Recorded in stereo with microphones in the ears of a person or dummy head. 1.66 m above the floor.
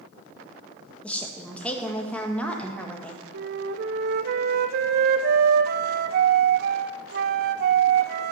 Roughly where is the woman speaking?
Centre.